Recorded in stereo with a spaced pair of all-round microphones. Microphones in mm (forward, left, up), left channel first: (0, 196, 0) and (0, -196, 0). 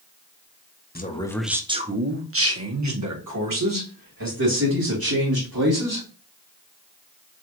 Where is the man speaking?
25° left (ahead or behind), 0.7 m; by 6.1 s 65° right (ahead or behind), 3 m.